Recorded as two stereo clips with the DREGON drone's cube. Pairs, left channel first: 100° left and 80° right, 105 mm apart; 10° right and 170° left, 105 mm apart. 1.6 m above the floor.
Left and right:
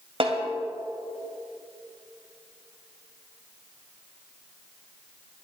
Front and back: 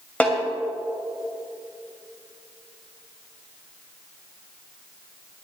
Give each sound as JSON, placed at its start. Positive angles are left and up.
{"t": 0.2, "sound": "a snare drum", "azimuth_deg": -85, "distance_m": 2.5}